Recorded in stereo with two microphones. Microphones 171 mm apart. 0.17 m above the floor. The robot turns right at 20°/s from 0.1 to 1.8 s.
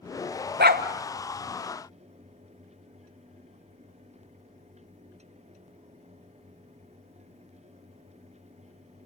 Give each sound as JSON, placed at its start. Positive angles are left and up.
{"t": 0.6, "sound": "a dog barking", "side_deg": -70, "distance_m": 1.2}